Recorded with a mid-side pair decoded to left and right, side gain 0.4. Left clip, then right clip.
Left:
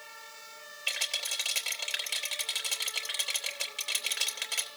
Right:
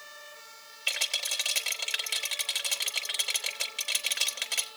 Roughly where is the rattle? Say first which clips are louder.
Right 2 dB; ahead.